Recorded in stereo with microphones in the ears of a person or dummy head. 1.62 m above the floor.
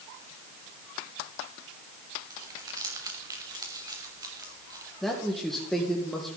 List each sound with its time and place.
2.3 s crumpling: 25° right (ahead or behind), 3 m
5.0 s a man speaking: 5° left (ahead or behind), 1.9 m